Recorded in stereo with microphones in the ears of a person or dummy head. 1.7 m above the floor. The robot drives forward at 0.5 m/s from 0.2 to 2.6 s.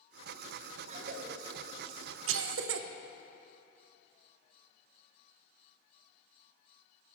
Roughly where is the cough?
Right.